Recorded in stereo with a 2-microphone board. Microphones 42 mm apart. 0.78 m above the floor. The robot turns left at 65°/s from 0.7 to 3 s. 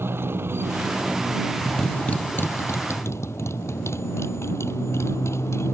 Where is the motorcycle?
120° right; by 5.7 s 90° left.